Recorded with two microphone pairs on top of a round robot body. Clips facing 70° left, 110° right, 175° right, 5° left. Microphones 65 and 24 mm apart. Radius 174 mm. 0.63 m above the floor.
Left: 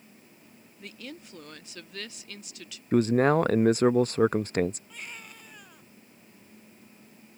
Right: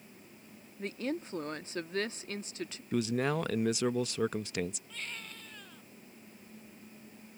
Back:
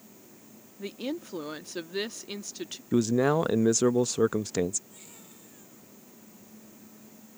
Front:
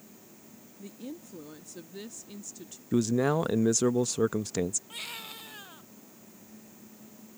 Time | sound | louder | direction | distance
0.8 | a woman speaking | right 8 dB, back 8 dB | 155° right | ?
2.9 | a man speaking | left 10 dB, back 2 dB | 110° left | ?
4.9 | a baby crying | even, front 12 dB | 5° right | ?